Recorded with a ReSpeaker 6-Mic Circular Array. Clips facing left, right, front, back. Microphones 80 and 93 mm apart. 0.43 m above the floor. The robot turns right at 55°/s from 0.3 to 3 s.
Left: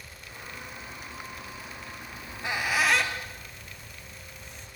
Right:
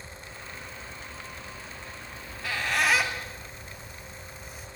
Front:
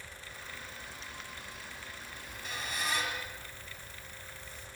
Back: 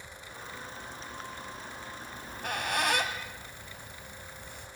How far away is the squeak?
About 2 m.